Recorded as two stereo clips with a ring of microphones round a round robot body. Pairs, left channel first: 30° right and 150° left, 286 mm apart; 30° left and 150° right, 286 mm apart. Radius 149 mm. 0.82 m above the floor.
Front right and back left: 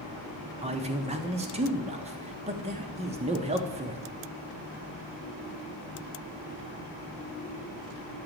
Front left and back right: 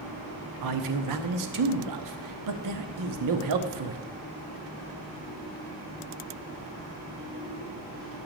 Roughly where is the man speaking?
Behind right.